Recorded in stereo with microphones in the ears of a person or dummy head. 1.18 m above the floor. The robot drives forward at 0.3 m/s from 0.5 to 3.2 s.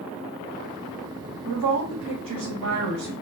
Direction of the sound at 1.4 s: 70° right (ahead or behind).